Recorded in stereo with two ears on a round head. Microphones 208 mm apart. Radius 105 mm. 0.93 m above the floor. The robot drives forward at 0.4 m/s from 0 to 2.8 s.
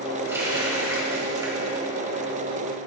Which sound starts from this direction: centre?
A running tap, at 0.3 s.